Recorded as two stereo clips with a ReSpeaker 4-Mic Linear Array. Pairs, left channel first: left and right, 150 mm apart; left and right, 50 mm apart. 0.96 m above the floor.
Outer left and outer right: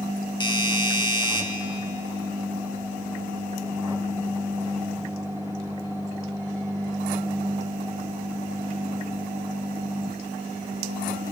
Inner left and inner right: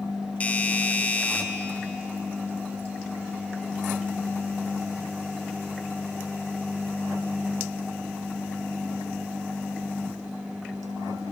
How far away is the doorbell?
About 1.9 m.